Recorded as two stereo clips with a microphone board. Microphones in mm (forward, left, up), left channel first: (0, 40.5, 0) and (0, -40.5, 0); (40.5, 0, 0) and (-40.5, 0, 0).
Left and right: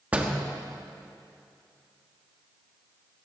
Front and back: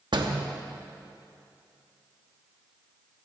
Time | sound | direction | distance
0.1 | a door slam | 165° right | 1.1 m